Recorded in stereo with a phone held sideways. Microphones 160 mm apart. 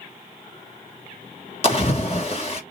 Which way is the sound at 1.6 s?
40° left (ahead or behind).